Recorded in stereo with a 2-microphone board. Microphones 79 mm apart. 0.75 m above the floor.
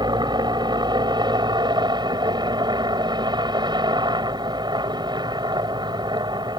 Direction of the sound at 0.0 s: 70° right (ahead or behind).